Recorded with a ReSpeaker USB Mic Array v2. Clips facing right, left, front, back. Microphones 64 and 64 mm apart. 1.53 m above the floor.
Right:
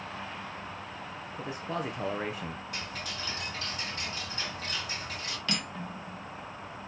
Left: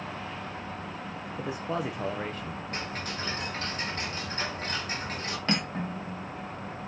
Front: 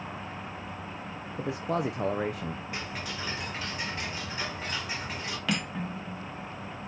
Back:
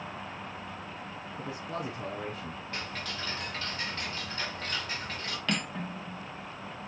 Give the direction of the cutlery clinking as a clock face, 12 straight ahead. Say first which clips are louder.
Left 6 dB, front 1 dB; 9 o'clock.